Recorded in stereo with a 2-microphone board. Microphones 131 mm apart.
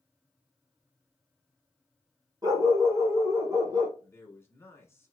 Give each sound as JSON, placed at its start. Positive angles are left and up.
{"t": 2.4, "sound": "a dog barking", "side_deg": -30, "distance_m": 1.5}
{"t": 4.0, "sound": "a man speaking", "side_deg": 20, "distance_m": 1.2}